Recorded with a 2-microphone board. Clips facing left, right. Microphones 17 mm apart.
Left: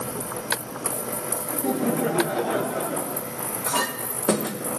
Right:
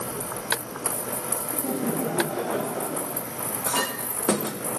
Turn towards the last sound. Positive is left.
turn(degrees=5)  # may be behind; listen again after turning